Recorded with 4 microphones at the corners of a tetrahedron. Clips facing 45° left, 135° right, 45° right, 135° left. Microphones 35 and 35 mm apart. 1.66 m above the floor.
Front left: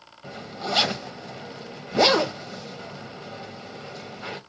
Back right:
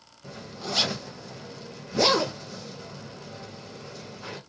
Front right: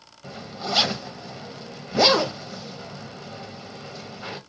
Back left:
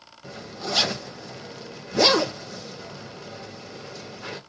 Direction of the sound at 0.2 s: 25° left.